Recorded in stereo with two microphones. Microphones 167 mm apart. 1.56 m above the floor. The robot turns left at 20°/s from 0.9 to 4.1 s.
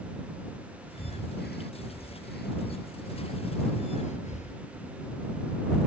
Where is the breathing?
70° left (ahead or behind); by 4.6 s 45° left (ahead or behind).